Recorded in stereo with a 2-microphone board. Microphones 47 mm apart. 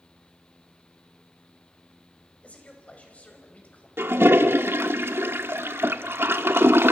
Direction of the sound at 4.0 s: 60° right (ahead or behind).